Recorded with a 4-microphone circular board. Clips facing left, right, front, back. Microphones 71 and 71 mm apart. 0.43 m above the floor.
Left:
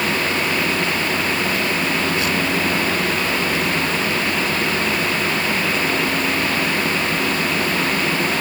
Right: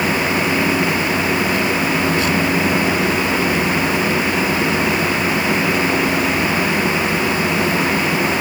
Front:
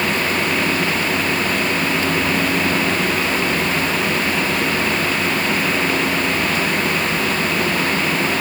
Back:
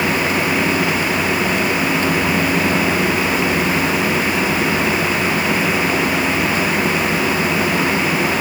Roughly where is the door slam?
I don't hear a door slam.